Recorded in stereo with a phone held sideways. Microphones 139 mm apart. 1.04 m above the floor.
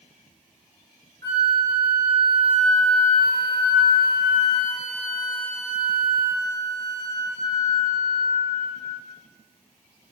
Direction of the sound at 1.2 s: 25° left (ahead or behind).